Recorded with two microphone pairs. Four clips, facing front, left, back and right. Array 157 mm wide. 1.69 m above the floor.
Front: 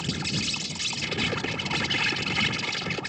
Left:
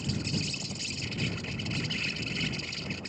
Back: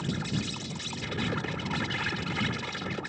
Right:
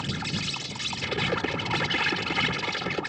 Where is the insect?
80° right.